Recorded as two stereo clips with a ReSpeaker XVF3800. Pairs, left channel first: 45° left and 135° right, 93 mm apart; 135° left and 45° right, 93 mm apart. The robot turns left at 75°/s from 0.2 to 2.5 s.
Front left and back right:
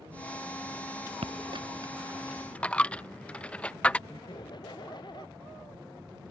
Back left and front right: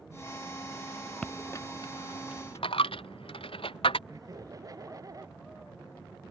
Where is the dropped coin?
140° right; by 4.0 s 120° left.